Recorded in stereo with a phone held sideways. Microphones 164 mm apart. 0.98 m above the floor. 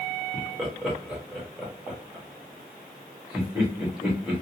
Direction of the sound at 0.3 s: 5° right (ahead or behind).